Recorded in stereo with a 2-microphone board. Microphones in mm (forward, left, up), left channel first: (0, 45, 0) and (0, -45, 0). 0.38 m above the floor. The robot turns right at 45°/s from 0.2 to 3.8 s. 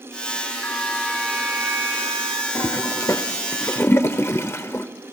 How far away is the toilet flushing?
About 0.7 m.